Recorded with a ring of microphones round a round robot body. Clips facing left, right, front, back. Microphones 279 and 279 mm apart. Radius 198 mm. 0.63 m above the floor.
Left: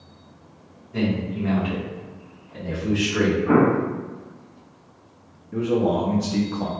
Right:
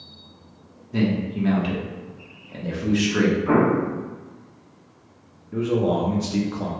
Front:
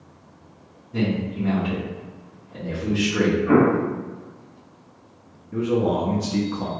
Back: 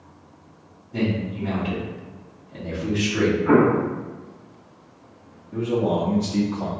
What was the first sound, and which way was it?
A man speaking, 75° right.